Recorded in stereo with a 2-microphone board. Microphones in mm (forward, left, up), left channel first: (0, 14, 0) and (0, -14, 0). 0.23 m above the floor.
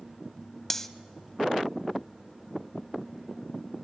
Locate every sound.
0.7 s cutlery clinking: 15° left (ahead or behind), 0.6 m